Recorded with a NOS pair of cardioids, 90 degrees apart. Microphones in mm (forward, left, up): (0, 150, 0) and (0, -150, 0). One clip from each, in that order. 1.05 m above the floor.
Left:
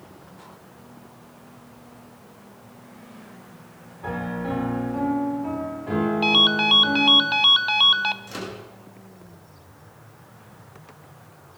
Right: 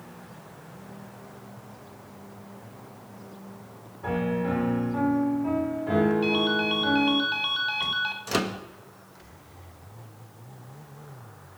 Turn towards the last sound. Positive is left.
turn(degrees=-55)